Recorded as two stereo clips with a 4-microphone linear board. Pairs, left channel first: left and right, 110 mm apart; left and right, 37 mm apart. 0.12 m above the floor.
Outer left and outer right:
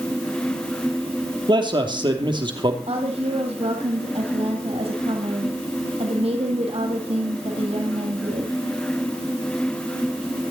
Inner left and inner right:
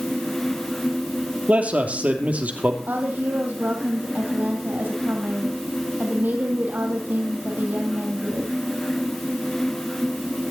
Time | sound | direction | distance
1.5 | a man speaking | 45° right (ahead or behind) | 2.5 m
2.9 | a woman speaking | 65° right (ahead or behind) | 4 m